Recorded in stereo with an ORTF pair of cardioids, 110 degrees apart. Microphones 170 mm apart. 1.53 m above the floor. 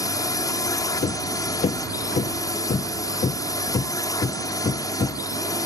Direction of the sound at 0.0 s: 20° left.